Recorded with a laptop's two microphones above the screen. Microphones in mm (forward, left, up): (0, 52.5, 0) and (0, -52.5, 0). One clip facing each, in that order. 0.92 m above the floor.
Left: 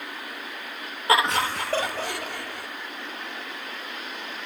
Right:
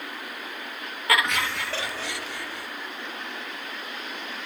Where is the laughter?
30° left (ahead or behind), 1.3 m; by 2.7 s 55° left (ahead or behind), 3 m.